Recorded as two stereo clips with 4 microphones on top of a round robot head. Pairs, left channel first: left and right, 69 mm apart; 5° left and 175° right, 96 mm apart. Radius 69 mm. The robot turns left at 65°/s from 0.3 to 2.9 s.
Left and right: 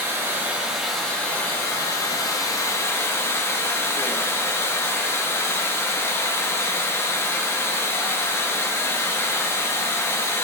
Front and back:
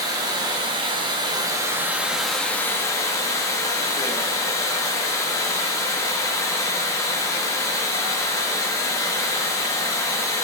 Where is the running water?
140° right, 1.0 m; by 10.4 s 50° left, 1.0 m.